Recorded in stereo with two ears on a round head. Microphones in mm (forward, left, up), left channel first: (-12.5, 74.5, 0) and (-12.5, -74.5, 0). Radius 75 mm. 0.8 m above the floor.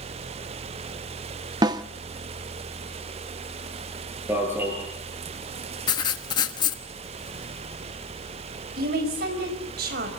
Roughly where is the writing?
Left.